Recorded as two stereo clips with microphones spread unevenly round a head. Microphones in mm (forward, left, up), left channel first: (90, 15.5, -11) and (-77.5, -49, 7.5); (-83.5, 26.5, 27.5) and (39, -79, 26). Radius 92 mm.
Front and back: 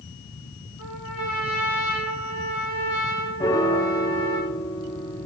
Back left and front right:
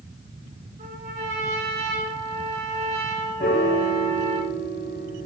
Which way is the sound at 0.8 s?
15° left.